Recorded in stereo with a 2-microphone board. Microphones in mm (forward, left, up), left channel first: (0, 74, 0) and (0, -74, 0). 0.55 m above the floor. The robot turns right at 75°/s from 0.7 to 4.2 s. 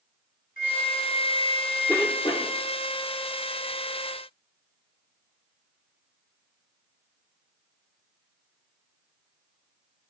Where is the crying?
I don't hear crying.